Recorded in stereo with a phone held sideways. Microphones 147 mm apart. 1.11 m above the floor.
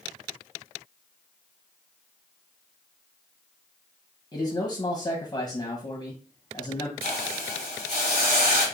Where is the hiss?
70° right (ahead or behind), 1.2 m.